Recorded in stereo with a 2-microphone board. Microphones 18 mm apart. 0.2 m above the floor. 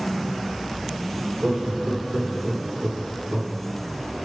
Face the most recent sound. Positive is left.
turn(degrees=-75)  # may be behind; listen again after turning